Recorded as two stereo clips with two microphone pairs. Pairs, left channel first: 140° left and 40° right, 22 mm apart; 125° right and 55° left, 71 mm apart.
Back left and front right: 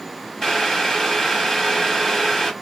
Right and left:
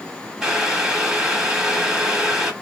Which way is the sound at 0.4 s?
120° left.